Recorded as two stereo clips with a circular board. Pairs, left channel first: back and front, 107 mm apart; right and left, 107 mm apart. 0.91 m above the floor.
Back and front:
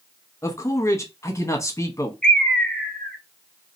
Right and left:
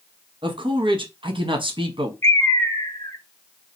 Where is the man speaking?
120° left, 0.9 m.